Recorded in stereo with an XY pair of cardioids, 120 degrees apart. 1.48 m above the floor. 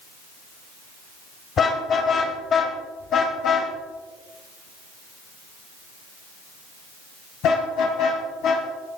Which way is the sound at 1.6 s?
45° left.